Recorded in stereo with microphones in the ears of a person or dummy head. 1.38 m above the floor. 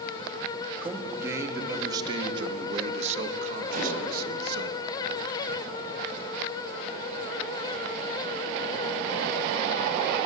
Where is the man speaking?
10° right (ahead or behind), 2.5 m; by 4.7 s 65° right (ahead or behind), 2 m.